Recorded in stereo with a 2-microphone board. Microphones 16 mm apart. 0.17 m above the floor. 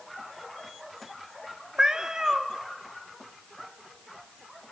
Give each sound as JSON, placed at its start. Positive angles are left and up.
{"t": 1.8, "sound": "a cat meowing", "side_deg": -45, "distance_m": 0.8}